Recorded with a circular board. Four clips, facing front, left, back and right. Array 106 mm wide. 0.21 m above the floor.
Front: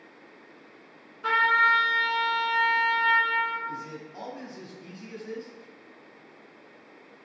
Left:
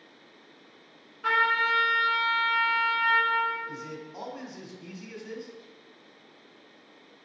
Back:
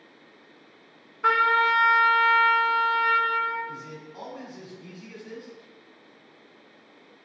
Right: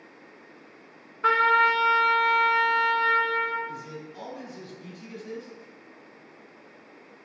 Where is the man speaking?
75° left, 1.4 m.